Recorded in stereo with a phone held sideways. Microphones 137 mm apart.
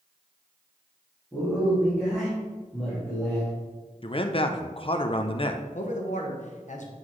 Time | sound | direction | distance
1.3 | a man speaking | centre (ahead or behind) | 2 m
4.0 | a man speaking | 40° left (ahead or behind) | 0.5 m
5.7 | a man speaking | 65° left (ahead or behind) | 1.1 m